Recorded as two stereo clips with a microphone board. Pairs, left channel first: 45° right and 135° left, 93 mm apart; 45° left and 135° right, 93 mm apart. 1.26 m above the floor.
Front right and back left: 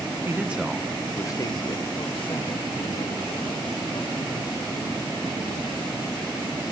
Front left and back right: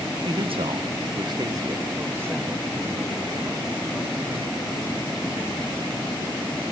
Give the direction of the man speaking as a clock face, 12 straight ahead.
5 o'clock.